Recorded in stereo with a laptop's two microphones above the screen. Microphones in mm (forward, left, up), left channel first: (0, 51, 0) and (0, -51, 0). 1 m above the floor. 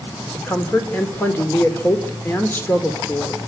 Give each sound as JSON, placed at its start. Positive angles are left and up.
{"t": 0.3, "sound": "a woman speaking", "side_deg": 20, "distance_m": 2.5}